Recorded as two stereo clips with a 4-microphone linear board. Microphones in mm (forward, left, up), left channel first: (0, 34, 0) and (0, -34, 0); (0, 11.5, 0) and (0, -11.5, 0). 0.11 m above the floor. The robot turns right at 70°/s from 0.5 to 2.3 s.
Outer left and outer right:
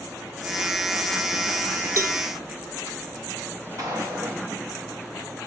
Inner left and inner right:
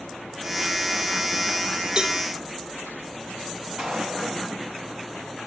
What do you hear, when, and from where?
2.0 s a cowbell: 45° right (ahead or behind), 0.7 m; by 2.2 s 30° right (ahead or behind), 0.7 m
3.8 s a gunshot: 50° right (ahead or behind), 5.5 m